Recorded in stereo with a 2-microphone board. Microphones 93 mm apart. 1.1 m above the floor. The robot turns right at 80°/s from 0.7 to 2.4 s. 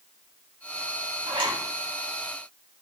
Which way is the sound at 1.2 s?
90° right.